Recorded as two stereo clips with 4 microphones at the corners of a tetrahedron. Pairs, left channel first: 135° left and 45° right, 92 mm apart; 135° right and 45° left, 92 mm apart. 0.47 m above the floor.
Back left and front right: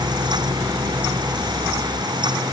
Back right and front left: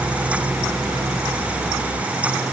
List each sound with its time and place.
Only background noise.